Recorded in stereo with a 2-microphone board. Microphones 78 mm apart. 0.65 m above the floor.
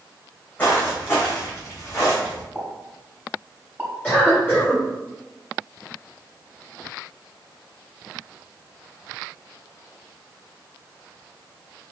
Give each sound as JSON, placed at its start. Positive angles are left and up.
{"t": 0.6, "sound": "footsteps", "side_deg": 25, "distance_m": 2.0}
{"t": 2.5, "sound": "a pop", "side_deg": -25, "distance_m": 1.1}
{"t": 4.0, "sound": "a cough", "side_deg": 20, "distance_m": 1.7}